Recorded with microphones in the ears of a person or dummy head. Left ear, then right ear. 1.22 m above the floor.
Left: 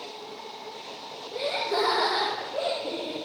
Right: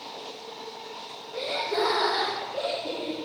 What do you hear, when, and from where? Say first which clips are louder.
1.3 s laughter: left 1 dB; 70° left (ahead or behind), 1.6 m; by 3.2 s 55° left (ahead or behind), 2 m